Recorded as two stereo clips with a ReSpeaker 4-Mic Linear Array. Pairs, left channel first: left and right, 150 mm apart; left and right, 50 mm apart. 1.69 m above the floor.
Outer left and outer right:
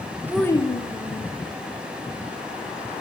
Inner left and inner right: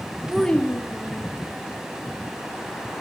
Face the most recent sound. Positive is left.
turn(degrees=65)  # may be behind; listen again after turning